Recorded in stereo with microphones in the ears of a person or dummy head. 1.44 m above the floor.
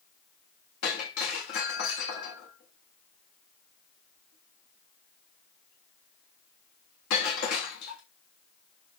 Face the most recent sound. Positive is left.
turn(degrees=50)  # may be behind; listen again after turning